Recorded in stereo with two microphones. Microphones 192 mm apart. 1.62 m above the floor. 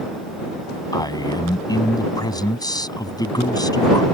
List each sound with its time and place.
0.9 s a man speaking: 20° left (ahead or behind)